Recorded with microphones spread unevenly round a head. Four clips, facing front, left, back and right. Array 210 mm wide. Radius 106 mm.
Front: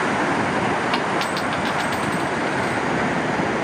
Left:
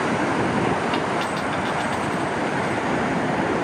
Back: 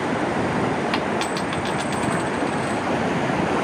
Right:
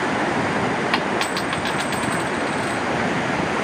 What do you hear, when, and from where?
0.9 s a dropped coin: 135° right, 0.9 m